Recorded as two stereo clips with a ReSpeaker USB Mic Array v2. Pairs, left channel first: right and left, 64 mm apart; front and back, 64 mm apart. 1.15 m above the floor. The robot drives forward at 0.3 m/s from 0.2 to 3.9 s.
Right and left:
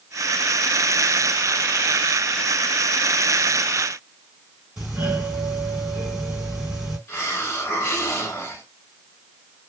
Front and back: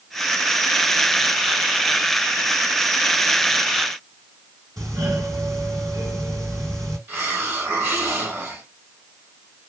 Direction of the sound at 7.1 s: 135° right.